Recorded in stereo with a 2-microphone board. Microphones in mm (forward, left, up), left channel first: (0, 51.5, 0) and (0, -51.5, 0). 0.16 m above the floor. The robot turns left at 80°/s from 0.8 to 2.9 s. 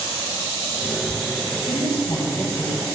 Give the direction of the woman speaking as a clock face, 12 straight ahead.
10 o'clock.